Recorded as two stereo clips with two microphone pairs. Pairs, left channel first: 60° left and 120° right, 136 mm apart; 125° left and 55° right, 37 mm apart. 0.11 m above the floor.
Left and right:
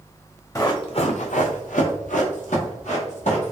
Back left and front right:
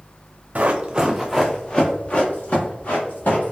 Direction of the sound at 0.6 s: 5° right.